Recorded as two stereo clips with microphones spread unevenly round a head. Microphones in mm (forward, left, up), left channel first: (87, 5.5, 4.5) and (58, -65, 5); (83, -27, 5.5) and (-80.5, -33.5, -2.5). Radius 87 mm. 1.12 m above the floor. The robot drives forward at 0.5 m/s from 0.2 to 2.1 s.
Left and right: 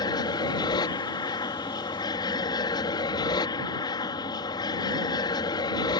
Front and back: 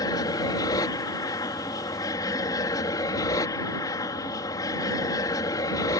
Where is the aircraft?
70° left.